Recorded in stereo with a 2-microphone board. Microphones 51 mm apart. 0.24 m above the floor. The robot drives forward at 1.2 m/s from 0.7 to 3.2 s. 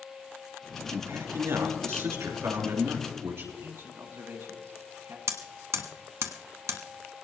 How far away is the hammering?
About 1.4 m.